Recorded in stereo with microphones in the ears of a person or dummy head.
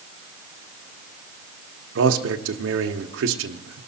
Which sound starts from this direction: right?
A man speaking, at 1.9 s.